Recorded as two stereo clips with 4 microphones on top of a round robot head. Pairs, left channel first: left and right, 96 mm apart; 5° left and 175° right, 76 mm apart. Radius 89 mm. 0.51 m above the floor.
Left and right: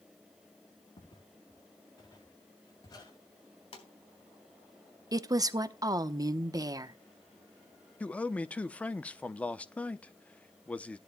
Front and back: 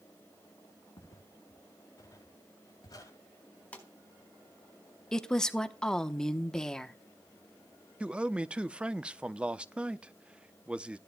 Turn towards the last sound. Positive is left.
turn(degrees=135)